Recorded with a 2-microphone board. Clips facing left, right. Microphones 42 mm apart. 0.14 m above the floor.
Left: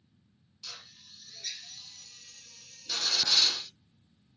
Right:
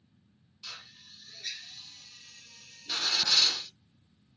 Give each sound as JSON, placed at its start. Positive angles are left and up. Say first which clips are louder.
{"t": 0.6, "sound": "a drill", "louder": "right 2 dB", "side_deg": -20, "distance_m": 1.0}